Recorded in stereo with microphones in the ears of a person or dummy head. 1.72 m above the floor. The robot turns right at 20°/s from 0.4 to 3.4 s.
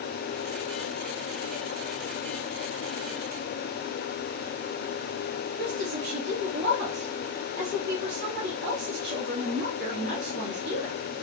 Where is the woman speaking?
65° right (ahead or behind), 1.5 m.